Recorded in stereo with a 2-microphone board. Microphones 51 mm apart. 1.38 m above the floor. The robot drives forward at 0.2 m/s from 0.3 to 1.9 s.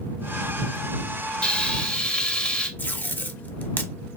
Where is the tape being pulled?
35° left (ahead or behind), 0.6 m.